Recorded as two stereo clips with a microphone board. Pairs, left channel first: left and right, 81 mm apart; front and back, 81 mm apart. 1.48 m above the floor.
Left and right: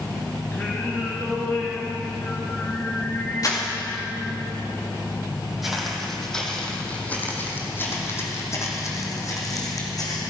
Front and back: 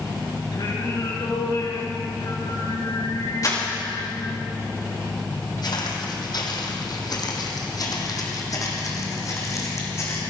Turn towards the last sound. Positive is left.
turn(degrees=55)